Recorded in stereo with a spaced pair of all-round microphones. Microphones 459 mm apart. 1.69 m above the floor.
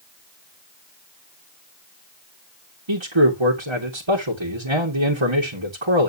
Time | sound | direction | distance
2.9 | a man speaking | 80° right | 2.5 m